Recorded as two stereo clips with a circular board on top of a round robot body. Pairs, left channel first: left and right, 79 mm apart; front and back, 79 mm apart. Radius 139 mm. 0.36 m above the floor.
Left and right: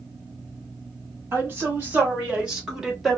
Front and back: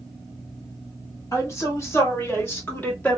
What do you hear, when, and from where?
1.3 s a woman speaking: 35° right, 2 m; by 3.2 s straight ahead, 1.4 m